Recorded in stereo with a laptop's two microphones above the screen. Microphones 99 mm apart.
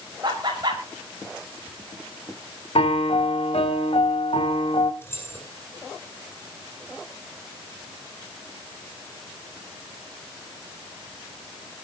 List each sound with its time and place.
0.2 s laughter: 45° right (ahead or behind), 5.5 m
2.8 s a piano: 75° left (ahead or behind), 1.7 m
5.0 s keys jangling: 20° left (ahead or behind), 8.5 m